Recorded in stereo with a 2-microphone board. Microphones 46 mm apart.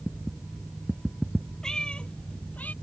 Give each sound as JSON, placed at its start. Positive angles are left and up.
{"t": 1.6, "sound": "a cat meowing", "side_deg": 15}